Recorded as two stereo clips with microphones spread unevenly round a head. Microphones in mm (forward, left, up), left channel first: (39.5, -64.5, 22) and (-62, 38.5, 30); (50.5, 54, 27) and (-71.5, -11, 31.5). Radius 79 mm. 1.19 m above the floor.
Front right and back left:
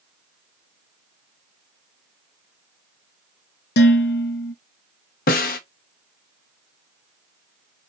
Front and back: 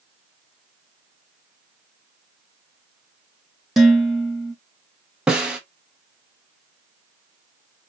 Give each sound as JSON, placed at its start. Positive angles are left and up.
{"t": 3.8, "sound": "dishes clattering", "azimuth_deg": -65, "distance_m": 1.0}
{"t": 5.3, "sound": "a snare drum", "azimuth_deg": -70, "distance_m": 0.7}